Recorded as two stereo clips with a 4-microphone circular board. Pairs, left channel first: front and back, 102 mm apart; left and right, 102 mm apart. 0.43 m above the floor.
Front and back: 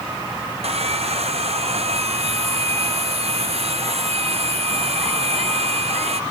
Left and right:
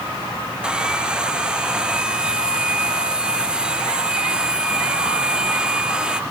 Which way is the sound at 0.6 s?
170° right.